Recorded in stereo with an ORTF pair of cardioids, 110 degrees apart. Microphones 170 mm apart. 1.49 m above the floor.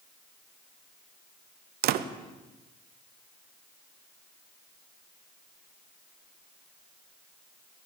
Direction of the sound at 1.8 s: 70° right.